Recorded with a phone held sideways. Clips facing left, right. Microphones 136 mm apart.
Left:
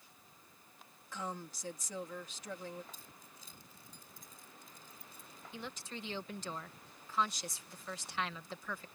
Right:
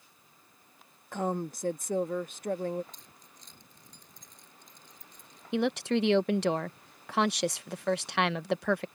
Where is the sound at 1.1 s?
55° right (ahead or behind).